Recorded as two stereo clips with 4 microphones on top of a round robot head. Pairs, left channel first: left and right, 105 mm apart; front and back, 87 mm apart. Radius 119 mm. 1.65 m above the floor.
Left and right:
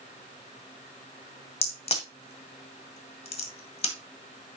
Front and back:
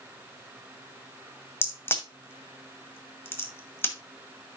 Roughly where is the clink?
No clink in this recording.